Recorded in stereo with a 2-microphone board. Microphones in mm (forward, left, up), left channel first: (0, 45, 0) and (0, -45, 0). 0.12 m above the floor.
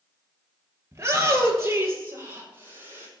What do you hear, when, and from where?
0.9 s a shout: 30° right (ahead or behind), 2 m